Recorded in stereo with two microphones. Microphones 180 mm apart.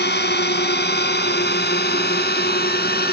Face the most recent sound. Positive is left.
turn(degrees=60)  # may be behind; listen again after turning